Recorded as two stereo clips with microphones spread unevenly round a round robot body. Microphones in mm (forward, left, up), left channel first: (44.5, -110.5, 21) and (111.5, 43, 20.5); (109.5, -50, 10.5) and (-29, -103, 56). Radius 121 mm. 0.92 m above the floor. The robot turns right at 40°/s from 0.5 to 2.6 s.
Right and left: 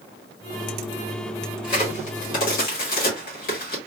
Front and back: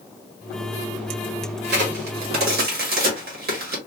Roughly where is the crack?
Behind.